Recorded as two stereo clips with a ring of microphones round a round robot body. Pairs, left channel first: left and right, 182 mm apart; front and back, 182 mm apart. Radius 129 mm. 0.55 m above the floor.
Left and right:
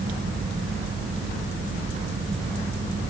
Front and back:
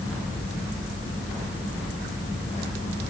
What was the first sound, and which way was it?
Only background noise.